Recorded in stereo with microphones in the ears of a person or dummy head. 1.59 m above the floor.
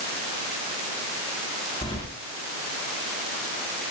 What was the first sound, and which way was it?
Keys jangling, 30° left (ahead or behind).